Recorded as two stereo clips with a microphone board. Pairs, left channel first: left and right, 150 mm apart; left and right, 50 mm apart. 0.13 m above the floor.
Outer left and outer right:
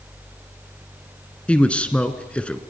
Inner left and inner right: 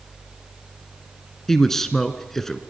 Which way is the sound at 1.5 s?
10° left (ahead or behind).